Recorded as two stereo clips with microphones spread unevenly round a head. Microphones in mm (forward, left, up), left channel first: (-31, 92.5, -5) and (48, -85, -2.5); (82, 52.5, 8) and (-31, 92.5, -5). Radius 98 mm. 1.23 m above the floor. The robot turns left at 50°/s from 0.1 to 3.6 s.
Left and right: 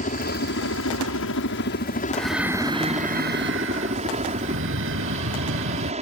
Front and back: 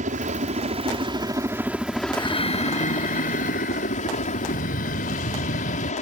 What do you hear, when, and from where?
0.0 s a helicopter: 165° left; by 6.0 s 10° right
2.1 s breathing: 30° left; by 5.9 s 40° right